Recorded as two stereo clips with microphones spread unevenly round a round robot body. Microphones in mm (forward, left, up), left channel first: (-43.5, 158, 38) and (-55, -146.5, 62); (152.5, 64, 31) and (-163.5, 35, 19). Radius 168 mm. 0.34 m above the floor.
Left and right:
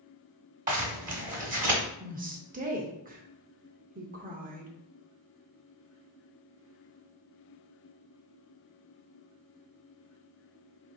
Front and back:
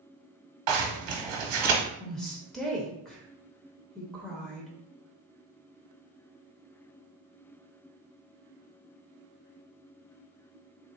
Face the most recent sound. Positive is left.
turn(degrees=-85)